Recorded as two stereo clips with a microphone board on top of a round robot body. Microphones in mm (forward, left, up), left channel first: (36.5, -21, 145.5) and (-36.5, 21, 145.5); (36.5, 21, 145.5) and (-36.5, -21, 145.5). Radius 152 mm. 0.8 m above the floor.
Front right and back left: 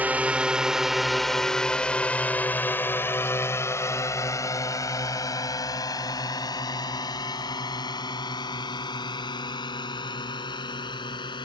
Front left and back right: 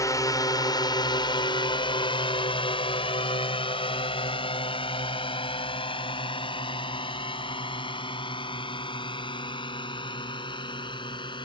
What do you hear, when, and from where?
0.0 s a drone: 80° left; by 11.4 s straight ahead